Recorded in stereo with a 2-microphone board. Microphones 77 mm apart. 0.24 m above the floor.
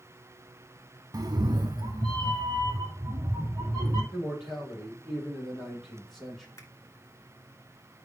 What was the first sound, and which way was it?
A cat meowing, 55° right (ahead or behind).